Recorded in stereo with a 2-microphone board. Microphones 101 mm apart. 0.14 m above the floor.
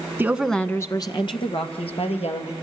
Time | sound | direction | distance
0.2 | a woman speaking | 20° right (ahead or behind) | 1.2 m